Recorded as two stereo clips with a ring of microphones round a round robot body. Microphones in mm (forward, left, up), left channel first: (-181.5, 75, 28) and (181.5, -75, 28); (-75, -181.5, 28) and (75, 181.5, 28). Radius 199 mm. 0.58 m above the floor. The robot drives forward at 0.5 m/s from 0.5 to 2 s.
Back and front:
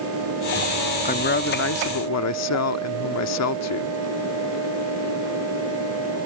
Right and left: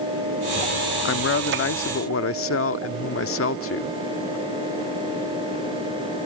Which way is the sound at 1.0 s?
145° right.